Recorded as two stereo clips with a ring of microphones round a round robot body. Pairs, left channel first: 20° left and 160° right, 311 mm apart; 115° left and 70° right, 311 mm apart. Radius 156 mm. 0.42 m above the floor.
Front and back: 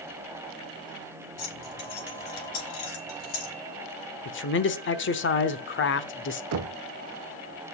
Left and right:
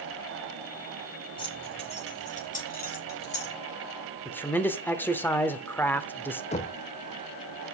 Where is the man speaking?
30° left, 0.9 m.